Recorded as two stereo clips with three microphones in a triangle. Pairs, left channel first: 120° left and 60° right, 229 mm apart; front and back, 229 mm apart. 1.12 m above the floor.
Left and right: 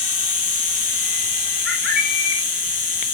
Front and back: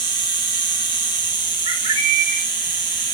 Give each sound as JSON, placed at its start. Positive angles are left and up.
{"t": 0.0, "sound": "an insect", "azimuth_deg": -70, "distance_m": 1.6}
{"t": 1.6, "sound": "a bird", "azimuth_deg": -60, "distance_m": 7.5}